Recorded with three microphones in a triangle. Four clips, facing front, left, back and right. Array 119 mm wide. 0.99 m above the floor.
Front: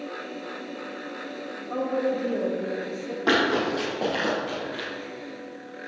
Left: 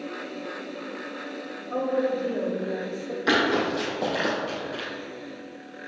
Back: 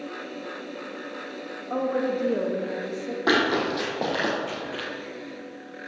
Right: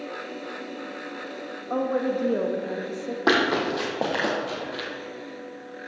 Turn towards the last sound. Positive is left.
turn(degrees=-135)